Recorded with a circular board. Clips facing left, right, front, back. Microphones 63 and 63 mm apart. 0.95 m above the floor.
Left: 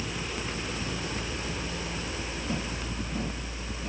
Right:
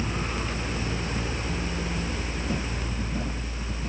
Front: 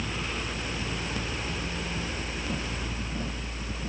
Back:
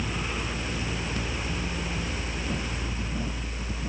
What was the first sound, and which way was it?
Only background noise.